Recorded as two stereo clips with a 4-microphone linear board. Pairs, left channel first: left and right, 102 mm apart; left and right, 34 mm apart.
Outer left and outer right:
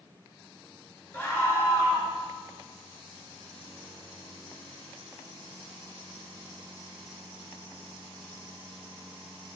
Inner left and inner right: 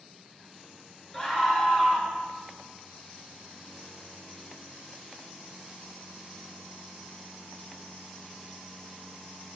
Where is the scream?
20° left (ahead or behind), 3 m.